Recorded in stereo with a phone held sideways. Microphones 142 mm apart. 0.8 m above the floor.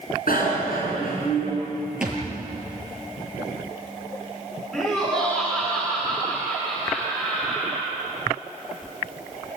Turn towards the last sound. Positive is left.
turn(degrees=5)  # may be behind; listen again after turning